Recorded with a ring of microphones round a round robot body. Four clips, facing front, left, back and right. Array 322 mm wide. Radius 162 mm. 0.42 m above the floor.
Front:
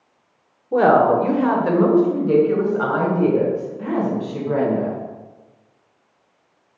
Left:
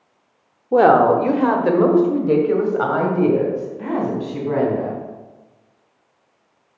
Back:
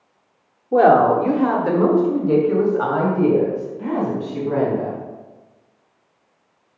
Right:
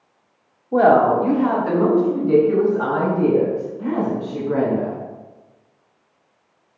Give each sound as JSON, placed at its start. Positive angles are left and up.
{"t": 0.7, "sound": "a woman speaking", "azimuth_deg": 90, "distance_m": 0.9}